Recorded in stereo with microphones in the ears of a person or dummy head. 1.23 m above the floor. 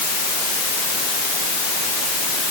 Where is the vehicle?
No vehicle in this recording.